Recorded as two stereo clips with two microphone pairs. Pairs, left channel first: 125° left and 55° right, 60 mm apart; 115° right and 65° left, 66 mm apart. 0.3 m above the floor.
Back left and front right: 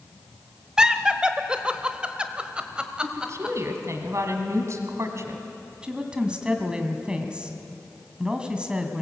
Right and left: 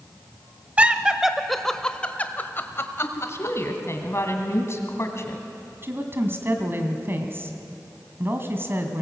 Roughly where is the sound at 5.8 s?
Ahead.